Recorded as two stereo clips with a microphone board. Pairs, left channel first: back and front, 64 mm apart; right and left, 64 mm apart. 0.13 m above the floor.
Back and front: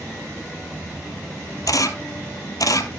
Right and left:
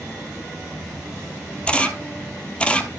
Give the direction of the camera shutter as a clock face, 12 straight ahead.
5 o'clock.